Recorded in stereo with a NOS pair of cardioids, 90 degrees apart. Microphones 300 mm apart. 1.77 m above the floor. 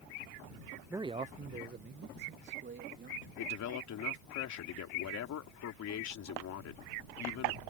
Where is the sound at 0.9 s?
5° right; by 3.3 s 40° right.